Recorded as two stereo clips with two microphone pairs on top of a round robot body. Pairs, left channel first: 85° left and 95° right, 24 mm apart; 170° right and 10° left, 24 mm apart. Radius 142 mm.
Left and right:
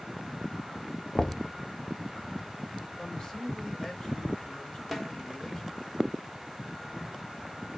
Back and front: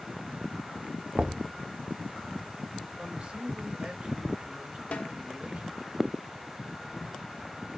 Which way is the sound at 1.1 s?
15° left.